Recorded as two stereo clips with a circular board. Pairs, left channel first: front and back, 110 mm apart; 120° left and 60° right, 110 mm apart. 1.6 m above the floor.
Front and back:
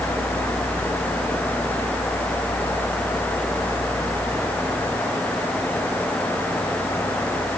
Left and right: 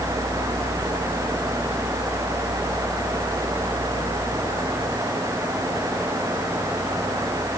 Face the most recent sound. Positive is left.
No sound to turn to.